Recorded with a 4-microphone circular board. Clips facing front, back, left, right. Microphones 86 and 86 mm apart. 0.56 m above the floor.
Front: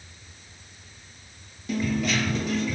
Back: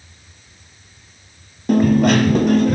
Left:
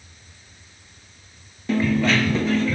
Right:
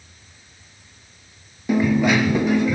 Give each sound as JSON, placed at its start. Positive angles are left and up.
{"t": 1.7, "sound": "a dropped coin", "azimuth_deg": -165, "distance_m": 1.0}